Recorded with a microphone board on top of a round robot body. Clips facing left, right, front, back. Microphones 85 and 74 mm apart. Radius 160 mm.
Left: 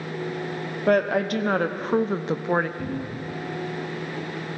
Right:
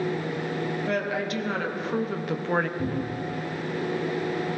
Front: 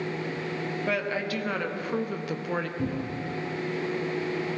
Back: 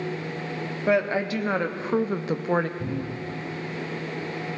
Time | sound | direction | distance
0.9 | a woman speaking | 115° left | 1.4 m
2.8 | a cupboard door | 5° right | 5.5 m